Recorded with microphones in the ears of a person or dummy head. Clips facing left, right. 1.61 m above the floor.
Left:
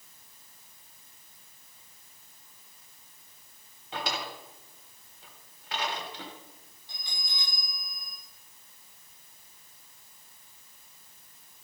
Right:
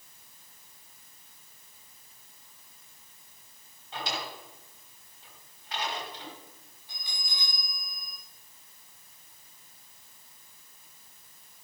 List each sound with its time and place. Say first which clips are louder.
3.9 s a drawer: left 1 dB; 55° left (ahead or behind), 2.5 m
6.9 s a bell: even; 10° right (ahead or behind), 5.5 m